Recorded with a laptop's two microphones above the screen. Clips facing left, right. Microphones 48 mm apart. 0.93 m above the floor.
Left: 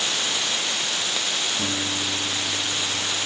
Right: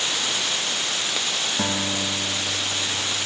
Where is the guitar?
60° right (ahead or behind), 4.5 m.